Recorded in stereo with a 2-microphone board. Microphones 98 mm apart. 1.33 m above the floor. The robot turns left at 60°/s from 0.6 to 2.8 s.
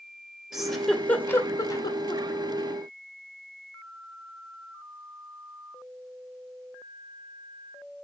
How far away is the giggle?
About 1.2 m.